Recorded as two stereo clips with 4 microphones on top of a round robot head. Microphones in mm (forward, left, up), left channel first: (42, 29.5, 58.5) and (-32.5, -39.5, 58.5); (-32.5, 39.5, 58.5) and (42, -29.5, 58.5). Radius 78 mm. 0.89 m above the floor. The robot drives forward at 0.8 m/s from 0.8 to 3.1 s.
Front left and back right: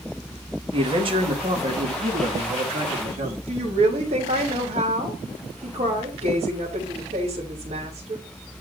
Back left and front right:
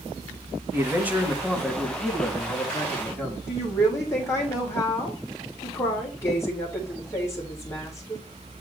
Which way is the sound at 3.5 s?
155° right.